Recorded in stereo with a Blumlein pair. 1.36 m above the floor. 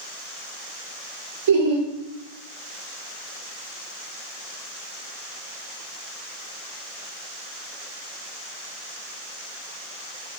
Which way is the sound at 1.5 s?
50° right.